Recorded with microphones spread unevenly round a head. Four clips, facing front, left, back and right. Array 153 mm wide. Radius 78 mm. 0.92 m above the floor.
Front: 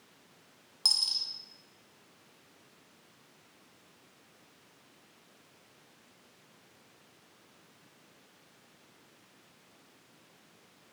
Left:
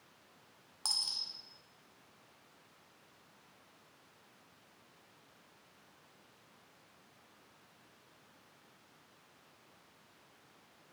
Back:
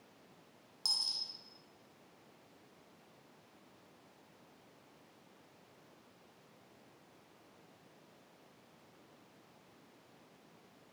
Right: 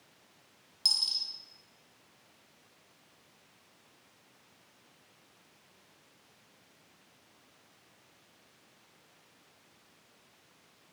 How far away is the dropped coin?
About 0.6 m.